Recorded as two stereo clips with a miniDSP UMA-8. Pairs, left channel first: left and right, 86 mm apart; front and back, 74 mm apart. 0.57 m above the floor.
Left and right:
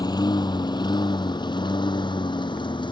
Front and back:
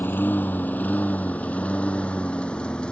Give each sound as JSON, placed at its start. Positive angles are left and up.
{"t": 0.0, "sound": "a lawn mower", "azimuth_deg": 60}